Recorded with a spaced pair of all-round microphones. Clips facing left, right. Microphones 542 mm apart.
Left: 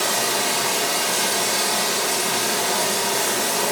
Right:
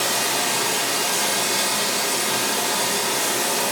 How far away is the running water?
About 3.5 m.